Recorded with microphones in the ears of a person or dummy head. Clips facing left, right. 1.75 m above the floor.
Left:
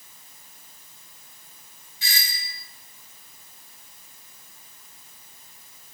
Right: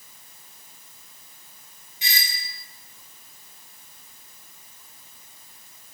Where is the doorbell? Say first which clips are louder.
Right 2 dB; 15° right (ahead or behind), 2.5 m.